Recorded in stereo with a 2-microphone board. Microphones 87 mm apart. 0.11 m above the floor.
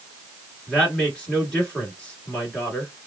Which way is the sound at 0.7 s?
10° left (ahead or behind).